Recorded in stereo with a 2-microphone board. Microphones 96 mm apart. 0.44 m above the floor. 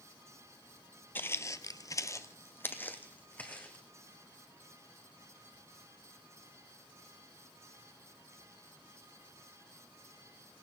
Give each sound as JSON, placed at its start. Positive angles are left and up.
{"t": 1.1, "sound": "footsteps", "side_deg": 20, "distance_m": 0.6}